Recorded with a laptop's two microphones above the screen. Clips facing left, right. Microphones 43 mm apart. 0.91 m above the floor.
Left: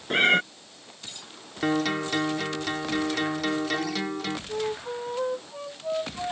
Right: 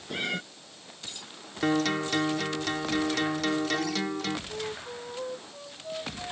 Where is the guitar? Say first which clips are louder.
Left 1 dB; 5° left (ahead or behind).